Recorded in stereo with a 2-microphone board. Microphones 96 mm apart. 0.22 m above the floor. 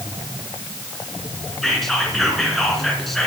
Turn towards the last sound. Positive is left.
turn(degrees=0)  # may be behind; listen again after turning